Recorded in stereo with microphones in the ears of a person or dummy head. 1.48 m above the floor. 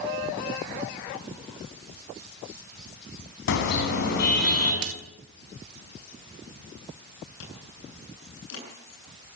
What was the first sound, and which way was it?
A car horn, 65° left (ahead or behind).